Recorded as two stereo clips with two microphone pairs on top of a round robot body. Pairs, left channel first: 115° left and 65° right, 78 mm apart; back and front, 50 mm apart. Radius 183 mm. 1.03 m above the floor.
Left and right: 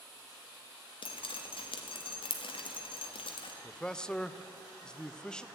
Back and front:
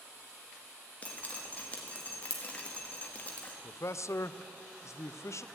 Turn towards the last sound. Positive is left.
turn(degrees=-170)